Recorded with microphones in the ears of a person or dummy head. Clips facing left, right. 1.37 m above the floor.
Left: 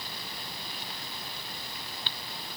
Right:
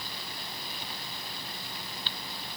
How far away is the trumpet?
No trumpet in this recording.